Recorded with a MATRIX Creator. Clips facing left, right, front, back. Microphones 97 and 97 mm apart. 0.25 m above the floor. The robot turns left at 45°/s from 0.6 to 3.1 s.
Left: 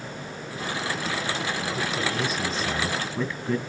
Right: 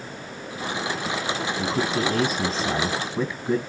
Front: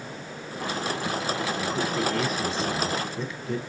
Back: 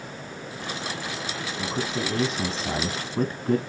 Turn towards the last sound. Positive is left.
turn(degrees=-160)